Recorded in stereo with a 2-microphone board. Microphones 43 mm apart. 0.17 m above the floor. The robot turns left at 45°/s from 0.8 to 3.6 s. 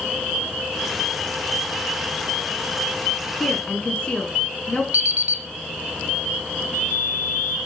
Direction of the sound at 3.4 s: 20° left (ahead or behind).